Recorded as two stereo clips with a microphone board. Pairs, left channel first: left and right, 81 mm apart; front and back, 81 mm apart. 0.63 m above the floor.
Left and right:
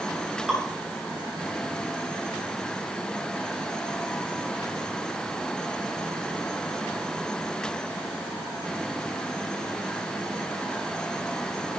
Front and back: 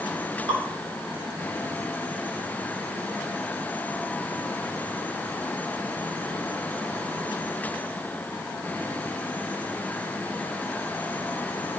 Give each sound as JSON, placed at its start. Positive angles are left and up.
{"t": 0.5, "sound": "dripping", "azimuth_deg": -170, "distance_m": 4.0}